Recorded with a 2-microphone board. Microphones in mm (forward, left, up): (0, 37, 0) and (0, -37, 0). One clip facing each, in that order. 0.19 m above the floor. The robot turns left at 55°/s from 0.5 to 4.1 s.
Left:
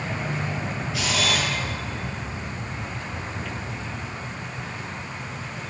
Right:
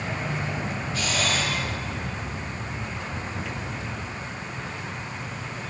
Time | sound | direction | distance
0.9 | a camera shutter | 105° left | 4 m